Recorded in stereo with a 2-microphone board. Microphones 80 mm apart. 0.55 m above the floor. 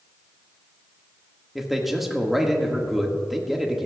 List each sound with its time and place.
1.6 s a man speaking: 5° right (ahead or behind), 1.1 m